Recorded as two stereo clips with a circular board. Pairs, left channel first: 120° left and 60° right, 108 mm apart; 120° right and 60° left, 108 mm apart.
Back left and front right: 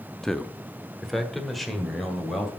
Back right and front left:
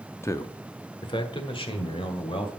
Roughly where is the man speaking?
Behind.